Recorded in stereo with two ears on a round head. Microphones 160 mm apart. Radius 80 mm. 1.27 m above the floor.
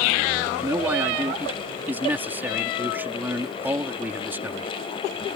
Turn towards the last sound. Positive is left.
turn(degrees=-10)  # may be behind; listen again after turning